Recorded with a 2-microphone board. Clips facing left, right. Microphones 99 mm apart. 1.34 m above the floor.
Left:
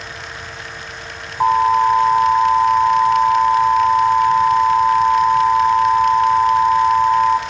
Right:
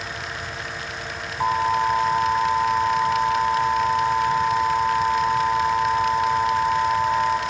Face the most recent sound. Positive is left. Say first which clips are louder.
# left 7 dB
turn(degrees=40)  # may be behind; listen again after turning